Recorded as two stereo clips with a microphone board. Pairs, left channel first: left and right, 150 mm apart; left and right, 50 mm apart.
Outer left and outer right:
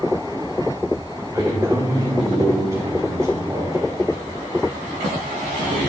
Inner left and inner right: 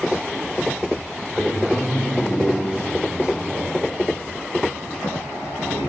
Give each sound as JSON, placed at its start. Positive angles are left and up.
{"t": 1.3, "sound": "a man speaking", "side_deg": -20, "distance_m": 7.0}